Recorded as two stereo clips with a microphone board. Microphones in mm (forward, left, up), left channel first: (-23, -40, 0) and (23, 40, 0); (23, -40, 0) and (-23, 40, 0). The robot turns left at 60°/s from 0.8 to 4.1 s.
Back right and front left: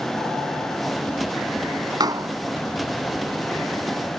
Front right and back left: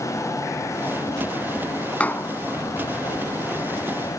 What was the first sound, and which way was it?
A door slam, 15° left.